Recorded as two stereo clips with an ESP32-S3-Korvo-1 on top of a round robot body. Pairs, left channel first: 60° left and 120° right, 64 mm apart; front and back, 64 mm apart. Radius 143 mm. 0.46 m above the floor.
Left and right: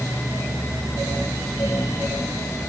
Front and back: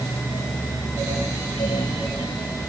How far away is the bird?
I don't hear a bird.